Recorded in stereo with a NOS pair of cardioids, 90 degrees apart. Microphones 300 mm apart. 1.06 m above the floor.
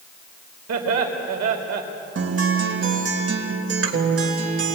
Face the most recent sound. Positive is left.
turn(degrees=-50)